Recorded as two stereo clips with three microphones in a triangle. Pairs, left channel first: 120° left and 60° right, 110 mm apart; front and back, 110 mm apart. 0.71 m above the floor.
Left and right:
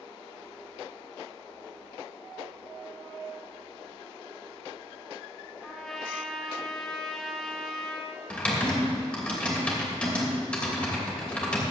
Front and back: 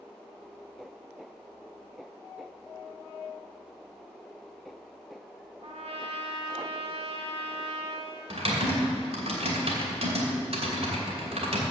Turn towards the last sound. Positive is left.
turn(degrees=-160)